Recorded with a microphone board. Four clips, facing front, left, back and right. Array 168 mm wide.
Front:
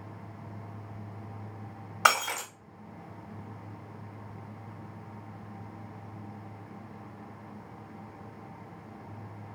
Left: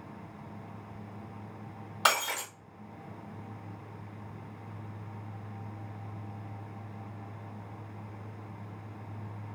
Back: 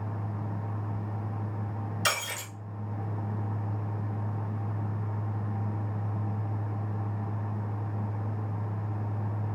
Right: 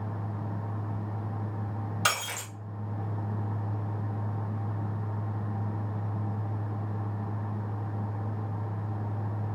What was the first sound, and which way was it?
Breaking glass, 20° left.